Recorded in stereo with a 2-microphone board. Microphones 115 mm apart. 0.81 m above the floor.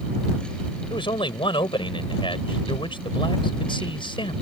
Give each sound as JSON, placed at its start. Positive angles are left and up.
{"t": 0.9, "sound": "a man speaking", "side_deg": 50}